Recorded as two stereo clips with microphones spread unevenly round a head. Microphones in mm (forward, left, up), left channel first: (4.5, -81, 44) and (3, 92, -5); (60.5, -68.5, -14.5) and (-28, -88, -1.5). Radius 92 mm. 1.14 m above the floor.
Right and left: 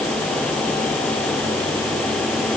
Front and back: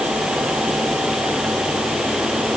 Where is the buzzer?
No buzzer in this recording.